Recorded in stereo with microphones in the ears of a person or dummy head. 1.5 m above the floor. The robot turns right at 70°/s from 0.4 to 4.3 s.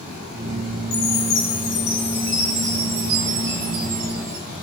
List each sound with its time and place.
0.9 s a chime: 80° left, 5.5 m; by 4.4 s 40° right, 5.5 m